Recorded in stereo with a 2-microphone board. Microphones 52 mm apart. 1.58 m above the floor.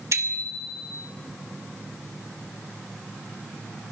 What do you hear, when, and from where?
0.1 s a bicycle bell: 80° right, 2.5 m